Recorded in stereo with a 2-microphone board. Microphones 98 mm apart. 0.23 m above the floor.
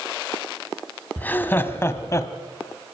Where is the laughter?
15° left (ahead or behind), 1.5 m; by 2.3 s 35° left (ahead or behind), 1.3 m.